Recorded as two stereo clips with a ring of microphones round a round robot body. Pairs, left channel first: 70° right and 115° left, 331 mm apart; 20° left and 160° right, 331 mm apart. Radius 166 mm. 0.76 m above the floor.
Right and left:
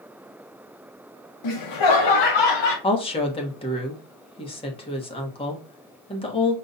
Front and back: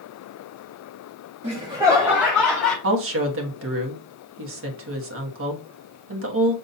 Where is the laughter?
90° right, 1.0 m; by 2.7 s 65° right, 1.6 m.